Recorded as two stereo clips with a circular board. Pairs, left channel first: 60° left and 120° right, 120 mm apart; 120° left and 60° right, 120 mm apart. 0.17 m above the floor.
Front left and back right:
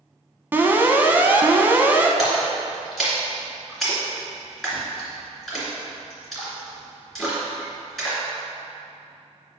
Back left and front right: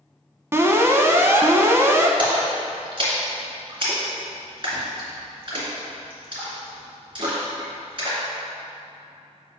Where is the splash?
30° right, 2.5 m.